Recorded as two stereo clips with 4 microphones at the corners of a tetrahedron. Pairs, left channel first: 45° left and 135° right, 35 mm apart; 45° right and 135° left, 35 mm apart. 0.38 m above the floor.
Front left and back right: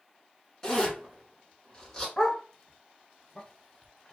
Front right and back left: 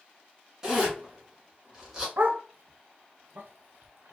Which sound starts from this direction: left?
A zipper, at 0.6 s.